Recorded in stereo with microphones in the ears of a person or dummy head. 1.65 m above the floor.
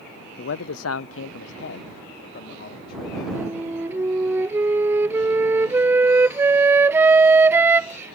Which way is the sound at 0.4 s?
50° left (ahead or behind).